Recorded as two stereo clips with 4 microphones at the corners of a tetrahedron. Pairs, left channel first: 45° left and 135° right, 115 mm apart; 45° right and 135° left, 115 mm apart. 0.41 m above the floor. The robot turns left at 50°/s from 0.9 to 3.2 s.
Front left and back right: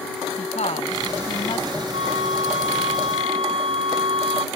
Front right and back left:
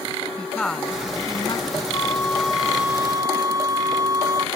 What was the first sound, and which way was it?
A woman speaking, 35° left.